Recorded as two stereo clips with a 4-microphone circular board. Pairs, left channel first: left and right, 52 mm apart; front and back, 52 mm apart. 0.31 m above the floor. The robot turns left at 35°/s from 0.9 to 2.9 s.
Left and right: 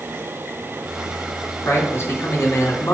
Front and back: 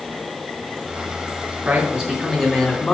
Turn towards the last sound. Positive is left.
turn(degrees=80)